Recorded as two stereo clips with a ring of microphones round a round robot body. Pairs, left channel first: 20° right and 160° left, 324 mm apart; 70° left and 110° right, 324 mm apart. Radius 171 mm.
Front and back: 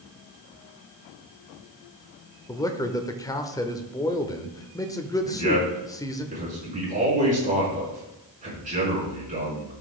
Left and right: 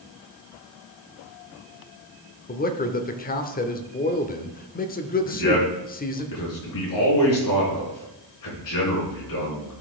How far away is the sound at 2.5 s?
About 0.9 m.